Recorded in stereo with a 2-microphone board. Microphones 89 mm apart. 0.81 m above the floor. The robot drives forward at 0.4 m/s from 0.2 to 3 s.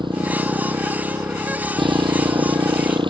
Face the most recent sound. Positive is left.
turn(degrees=-80)